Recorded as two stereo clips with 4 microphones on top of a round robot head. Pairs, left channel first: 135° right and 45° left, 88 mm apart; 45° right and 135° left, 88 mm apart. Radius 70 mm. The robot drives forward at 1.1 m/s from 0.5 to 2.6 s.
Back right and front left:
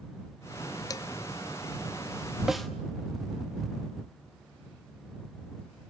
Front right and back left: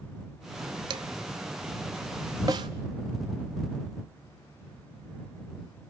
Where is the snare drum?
125° left, 0.8 m; by 2.7 s 140° left, 0.8 m.